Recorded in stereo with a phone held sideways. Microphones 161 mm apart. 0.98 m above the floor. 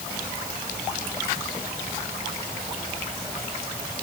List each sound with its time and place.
Only background noise.